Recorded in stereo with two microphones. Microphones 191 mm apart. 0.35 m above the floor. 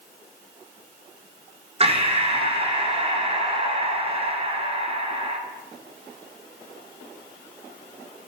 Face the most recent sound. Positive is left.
turn(degrees=-30)  # may be behind; listen again after turning